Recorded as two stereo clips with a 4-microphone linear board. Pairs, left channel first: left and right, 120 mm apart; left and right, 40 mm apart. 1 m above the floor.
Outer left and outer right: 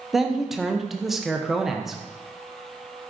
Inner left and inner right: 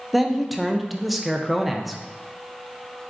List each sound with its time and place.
0.1 s a man speaking: centre (ahead or behind), 0.5 m